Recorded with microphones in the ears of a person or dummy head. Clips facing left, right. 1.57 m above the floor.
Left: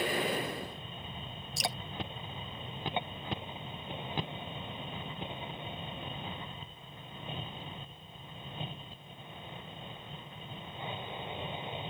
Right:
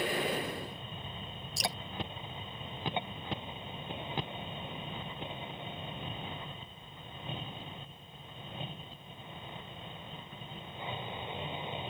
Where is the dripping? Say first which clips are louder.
Even; centre (ahead or behind).